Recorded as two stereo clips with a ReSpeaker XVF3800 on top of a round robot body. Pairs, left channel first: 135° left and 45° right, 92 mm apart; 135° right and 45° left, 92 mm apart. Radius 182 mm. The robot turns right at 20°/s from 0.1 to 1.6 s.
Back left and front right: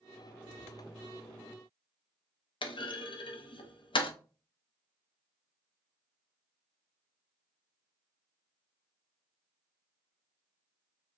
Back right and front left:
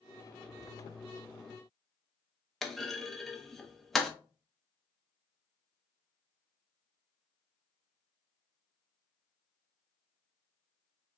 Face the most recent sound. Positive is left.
turn(degrees=140)